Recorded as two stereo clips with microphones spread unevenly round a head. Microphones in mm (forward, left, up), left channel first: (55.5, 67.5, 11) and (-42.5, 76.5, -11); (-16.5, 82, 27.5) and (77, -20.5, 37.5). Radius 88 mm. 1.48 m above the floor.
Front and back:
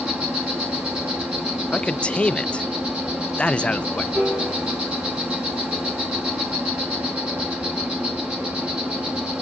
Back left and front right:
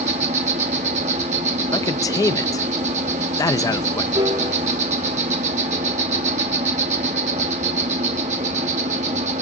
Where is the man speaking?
65° left, 0.5 m.